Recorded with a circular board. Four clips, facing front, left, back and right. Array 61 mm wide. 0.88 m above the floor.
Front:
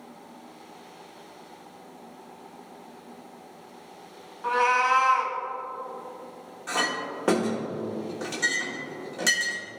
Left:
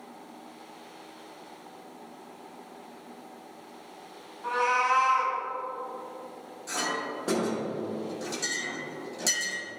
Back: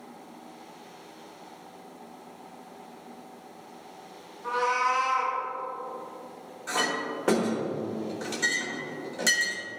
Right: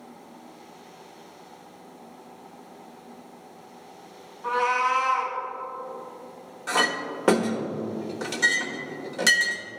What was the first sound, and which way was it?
A cat meowing, 5° left.